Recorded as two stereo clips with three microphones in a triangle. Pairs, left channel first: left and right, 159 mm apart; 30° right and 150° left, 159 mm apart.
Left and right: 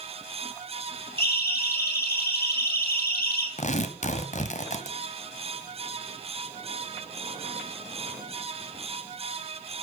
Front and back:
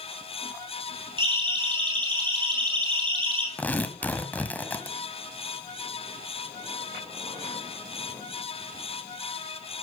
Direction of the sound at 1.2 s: 90° left.